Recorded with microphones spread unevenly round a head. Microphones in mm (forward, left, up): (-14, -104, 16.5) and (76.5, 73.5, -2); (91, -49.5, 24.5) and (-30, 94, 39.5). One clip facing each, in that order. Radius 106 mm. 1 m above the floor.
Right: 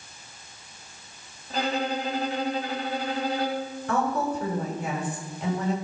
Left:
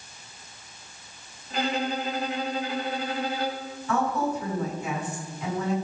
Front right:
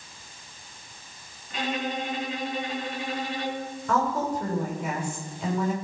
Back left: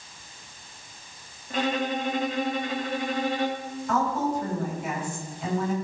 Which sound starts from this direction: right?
A woman speaking, at 3.9 s.